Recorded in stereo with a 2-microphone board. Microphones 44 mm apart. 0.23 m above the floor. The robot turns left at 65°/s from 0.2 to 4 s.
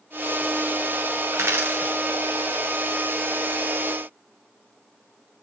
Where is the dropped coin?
75° right (ahead or behind), 1.8 m; by 2.0 s 35° right (ahead or behind), 1.8 m.